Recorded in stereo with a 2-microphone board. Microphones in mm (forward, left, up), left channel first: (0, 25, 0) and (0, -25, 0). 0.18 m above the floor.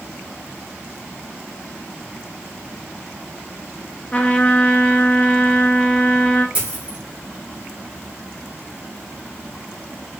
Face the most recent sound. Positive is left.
turn(degrees=-20)  # may be behind; listen again after turning